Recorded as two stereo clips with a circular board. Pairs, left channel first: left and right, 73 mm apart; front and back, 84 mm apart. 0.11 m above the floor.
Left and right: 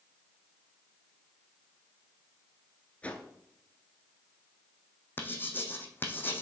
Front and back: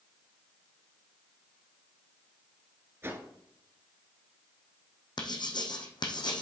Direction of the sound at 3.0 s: 145° left.